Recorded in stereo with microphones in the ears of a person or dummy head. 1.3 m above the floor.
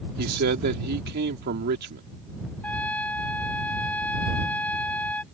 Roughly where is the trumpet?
Centre.